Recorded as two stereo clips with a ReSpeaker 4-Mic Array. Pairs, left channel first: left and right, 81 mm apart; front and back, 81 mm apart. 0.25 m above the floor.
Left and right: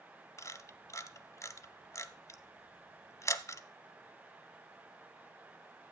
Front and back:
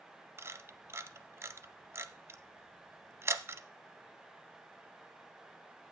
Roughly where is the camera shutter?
Behind left.